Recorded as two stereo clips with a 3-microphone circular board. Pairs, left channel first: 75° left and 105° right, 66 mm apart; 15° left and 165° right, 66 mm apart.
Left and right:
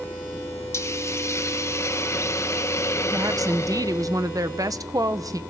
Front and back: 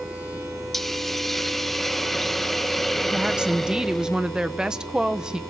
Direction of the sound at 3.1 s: 85° right.